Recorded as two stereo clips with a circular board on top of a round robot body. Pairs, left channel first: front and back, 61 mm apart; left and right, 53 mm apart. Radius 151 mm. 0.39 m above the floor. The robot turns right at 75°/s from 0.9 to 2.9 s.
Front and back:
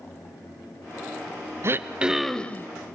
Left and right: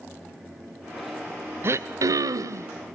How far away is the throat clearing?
About 0.7 m.